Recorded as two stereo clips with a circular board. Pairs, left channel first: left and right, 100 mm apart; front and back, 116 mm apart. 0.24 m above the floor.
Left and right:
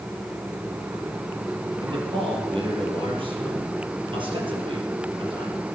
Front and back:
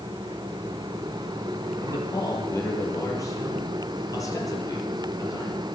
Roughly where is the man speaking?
Ahead right.